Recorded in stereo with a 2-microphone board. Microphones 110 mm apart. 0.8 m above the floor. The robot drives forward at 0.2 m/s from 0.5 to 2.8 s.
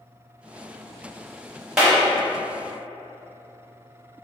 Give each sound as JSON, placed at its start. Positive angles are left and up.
{"t": 1.8, "sound": "a clap", "side_deg": -5, "distance_m": 1.1}